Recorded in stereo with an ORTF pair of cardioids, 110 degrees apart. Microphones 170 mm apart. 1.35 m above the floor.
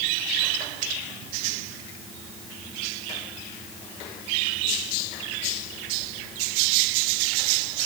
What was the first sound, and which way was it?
Only background noise.